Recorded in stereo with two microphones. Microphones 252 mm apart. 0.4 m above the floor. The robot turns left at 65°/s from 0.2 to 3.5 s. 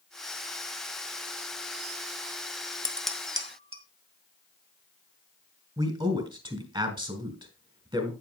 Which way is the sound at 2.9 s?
15° left (ahead or behind).